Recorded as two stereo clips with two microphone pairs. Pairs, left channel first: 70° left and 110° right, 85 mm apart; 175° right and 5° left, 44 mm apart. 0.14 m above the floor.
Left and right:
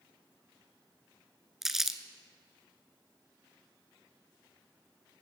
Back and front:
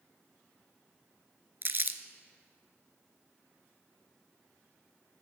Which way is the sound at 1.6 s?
20° right.